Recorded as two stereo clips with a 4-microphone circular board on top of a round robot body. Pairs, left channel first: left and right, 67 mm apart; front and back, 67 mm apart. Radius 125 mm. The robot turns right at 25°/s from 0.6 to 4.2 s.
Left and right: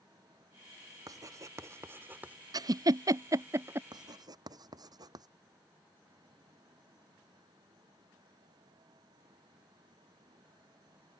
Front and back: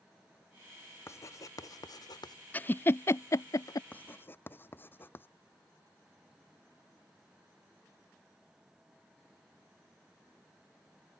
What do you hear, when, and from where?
1.1 s writing: 55° right; by 2.4 s 20° right
2.5 s a giggle: 65° right; by 3.8 s 35° right
3.9 s writing: 70° right; by 5.3 s 65° right